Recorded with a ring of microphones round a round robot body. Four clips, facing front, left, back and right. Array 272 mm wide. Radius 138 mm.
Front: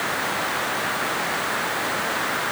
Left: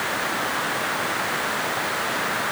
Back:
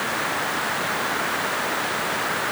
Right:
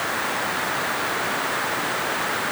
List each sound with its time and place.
Only background noise.